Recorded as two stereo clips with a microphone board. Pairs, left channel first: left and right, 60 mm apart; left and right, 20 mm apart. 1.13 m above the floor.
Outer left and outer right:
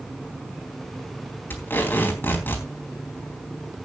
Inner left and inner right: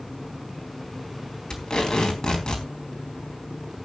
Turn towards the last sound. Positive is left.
turn(degrees=40)  # may be behind; listen again after turning